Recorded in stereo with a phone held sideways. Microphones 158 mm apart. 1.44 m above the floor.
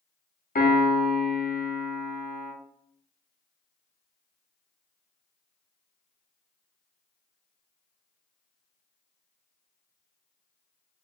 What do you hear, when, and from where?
0.6 s a piano: 60° left (ahead or behind), 0.6 m